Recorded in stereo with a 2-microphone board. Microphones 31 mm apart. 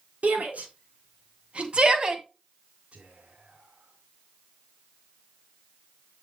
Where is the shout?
60° right (ahead or behind), 4.5 m; by 2.2 s 20° right (ahead or behind), 2.0 m.